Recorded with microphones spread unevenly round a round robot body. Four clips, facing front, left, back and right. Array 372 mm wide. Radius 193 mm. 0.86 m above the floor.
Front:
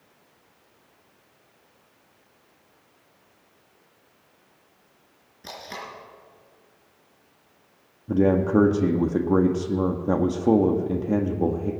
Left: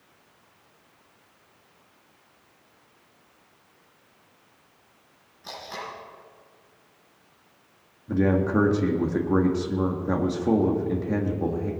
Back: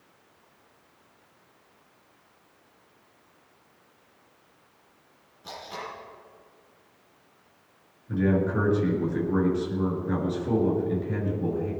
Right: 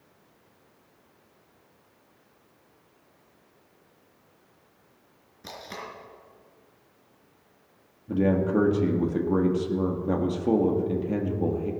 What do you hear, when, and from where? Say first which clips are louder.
5.4 s tape being pulled: left 3 dB, even; 45° right, 4 m
8.1 s a man speaking: left 1 dB, front 5 dB; 15° left, 1.7 m